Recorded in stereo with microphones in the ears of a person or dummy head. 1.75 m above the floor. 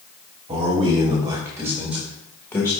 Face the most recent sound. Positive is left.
turn(degrees=15)  # may be behind; listen again after turning